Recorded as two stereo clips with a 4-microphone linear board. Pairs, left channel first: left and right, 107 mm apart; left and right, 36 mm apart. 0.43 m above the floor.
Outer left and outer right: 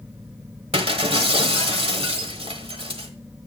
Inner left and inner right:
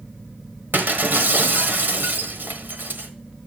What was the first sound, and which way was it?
Breaking glass, 65° right (ahead or behind).